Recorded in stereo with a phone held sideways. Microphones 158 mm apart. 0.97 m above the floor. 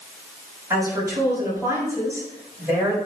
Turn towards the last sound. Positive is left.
turn(degrees=-20)  # may be behind; listen again after turning